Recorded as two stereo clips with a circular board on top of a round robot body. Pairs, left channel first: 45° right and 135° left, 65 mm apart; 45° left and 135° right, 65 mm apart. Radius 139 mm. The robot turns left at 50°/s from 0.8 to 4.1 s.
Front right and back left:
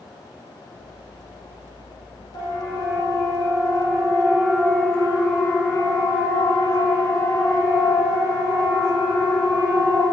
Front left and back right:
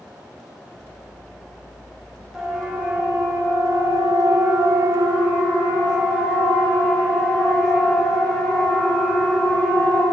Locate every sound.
2.3 s a siren: 50° right, 5 m; by 10.0 s 30° right, 8 m